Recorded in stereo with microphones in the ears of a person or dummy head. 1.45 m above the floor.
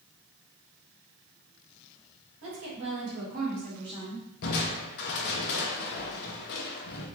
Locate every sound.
2.4 s a woman speaking: 70° right (ahead or behind), 1.9 m; by 4.3 s 5° left (ahead or behind), 0.7 m
4.4 s crushing: 60° left (ahead or behind), 0.7 m